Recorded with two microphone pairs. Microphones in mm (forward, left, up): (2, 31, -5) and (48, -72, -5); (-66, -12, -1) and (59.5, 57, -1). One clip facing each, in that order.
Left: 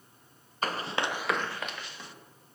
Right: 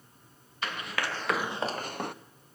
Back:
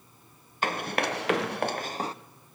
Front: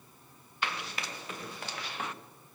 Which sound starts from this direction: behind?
Running footsteps, at 0.6 s.